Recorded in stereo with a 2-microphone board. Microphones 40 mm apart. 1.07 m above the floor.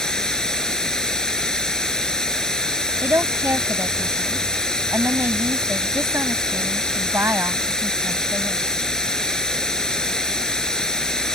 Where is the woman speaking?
85° right.